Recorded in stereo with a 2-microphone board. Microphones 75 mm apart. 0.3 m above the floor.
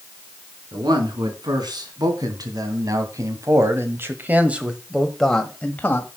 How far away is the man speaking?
About 3.5 m.